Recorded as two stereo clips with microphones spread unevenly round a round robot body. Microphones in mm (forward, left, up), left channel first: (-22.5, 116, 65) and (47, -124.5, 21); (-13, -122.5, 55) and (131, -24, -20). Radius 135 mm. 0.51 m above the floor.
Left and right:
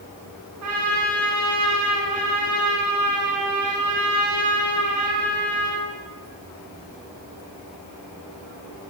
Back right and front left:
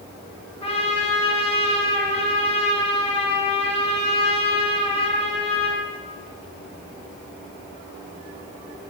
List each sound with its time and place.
0.6 s a trumpet: 85° right, 3.5 m